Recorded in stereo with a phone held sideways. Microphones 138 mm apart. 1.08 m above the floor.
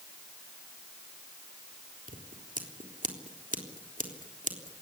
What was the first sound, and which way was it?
Scissors, 80° right.